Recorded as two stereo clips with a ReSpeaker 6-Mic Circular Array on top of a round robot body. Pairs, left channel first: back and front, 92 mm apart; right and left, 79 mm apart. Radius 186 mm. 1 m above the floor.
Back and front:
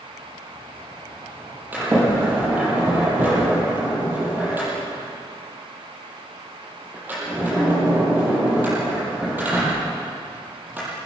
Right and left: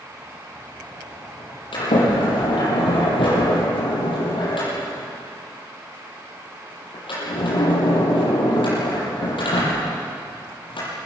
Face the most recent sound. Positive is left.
turn(degrees=-75)